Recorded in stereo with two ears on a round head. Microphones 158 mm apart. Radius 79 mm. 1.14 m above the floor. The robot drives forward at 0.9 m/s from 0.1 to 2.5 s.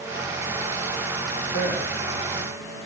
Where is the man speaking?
60° left (ahead or behind), 3.5 m; by 1.9 s 55° left (ahead or behind), 4 m.